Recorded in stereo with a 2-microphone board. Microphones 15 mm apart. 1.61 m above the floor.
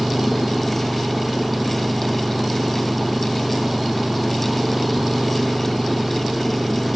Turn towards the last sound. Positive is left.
turn(degrees=-20)  # may be behind; listen again after turning